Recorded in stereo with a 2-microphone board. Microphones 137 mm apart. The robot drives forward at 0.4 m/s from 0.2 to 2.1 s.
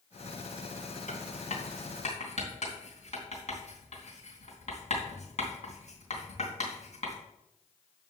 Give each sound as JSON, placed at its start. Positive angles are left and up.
{"t": 1.1, "sound": "writing", "side_deg": 60, "distance_m": 3.0}